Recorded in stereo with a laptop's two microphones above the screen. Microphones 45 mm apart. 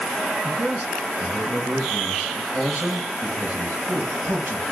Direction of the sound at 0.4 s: 55° right (ahead or behind).